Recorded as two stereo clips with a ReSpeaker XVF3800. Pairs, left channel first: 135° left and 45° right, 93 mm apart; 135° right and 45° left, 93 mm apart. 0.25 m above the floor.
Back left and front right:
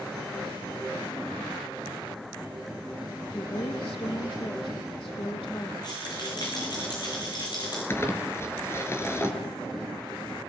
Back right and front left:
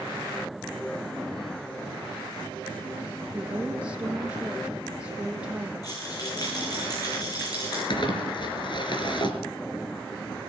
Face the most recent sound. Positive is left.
turn(degrees=-165)